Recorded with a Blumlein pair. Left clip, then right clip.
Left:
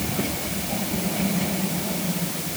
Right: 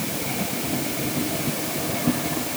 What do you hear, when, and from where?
Only background noise.